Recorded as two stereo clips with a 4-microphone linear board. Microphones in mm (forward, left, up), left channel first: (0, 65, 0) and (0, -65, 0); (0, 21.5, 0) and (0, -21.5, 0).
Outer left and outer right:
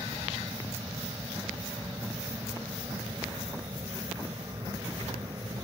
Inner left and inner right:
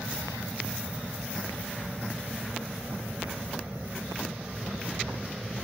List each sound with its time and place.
0.0 s an aircraft: 25° right (ahead or behind); by 5.6 s 35° right (ahead or behind)